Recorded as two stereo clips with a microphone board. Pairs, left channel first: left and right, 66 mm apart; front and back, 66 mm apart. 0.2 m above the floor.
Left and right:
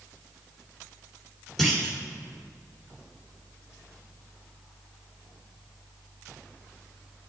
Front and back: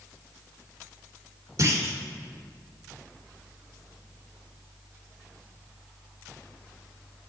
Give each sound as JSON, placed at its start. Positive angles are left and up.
{"t": 1.6, "sound": "a clunk", "azimuth_deg": 175, "distance_m": 3.0}